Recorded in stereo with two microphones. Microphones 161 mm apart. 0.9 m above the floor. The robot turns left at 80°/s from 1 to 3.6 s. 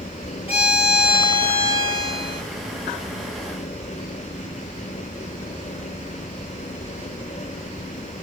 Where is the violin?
55° left, 1.4 m; by 2.4 s 60° right, 1.4 m.